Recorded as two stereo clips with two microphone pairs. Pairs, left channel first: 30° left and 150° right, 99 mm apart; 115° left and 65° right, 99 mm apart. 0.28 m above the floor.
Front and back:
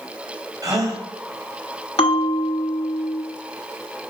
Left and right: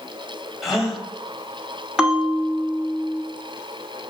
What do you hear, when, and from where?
0.6 s a gasp: 150° right, 1.5 m
2.0 s a bell: 20° left, 1.0 m